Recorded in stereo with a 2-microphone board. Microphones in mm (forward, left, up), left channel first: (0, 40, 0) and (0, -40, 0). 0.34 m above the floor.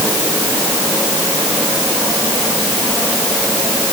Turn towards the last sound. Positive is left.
No sound to turn to.